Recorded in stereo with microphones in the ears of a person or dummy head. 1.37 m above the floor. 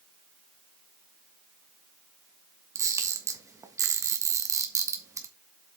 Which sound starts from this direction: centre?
A camera shutter, at 2.8 s.